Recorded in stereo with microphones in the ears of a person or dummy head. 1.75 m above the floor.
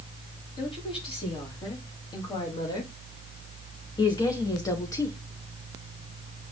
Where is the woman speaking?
30° left (ahead or behind), 4.5 m; by 5.2 s 15° left (ahead or behind), 1.2 m.